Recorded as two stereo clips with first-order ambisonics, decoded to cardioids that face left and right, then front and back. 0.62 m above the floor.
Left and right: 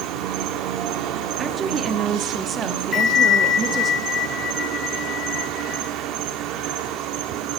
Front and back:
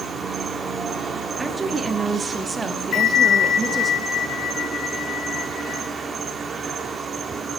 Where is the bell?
30° left, 1.0 m.